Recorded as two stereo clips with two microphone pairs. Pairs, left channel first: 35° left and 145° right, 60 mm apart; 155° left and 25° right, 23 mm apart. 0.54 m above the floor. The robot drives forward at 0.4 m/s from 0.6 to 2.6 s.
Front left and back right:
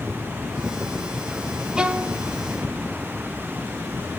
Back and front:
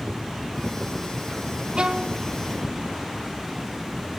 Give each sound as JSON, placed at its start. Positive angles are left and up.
{"t": 1.8, "sound": "a violin", "azimuth_deg": -65, "distance_m": 0.5}